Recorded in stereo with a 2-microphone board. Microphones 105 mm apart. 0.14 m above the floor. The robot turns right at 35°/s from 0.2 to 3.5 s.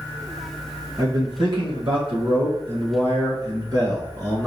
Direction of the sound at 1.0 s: 135° right.